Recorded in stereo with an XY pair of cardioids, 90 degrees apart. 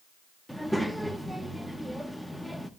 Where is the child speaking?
Straight ahead, 1.1 m.